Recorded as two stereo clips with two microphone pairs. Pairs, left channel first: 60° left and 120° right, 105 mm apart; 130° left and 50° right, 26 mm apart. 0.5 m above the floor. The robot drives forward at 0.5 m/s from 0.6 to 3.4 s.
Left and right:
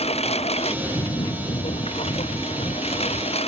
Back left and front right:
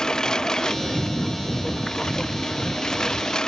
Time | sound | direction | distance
0.0 | a lawn mower | 70° left | ?